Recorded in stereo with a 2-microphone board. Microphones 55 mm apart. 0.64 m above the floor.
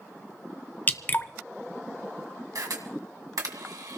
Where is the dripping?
35° left (ahead or behind), 0.6 m.